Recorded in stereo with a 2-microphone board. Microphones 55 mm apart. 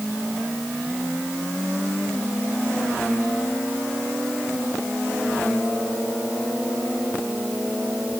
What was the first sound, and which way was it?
Only background noise.